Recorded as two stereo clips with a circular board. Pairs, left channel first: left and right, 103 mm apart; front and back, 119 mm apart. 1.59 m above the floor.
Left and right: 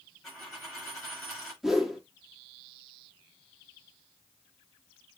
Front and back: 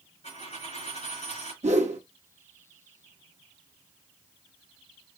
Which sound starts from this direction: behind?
A whoosh, at 1.6 s.